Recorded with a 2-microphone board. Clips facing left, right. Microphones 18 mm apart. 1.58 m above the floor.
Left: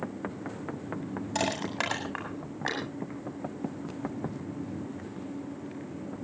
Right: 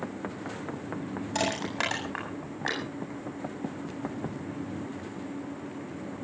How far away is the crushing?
About 8 m.